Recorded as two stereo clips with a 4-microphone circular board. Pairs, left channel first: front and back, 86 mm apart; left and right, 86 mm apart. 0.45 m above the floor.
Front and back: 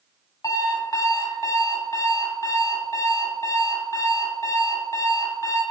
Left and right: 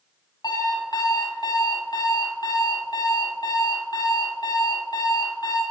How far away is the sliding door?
No sliding door in this recording.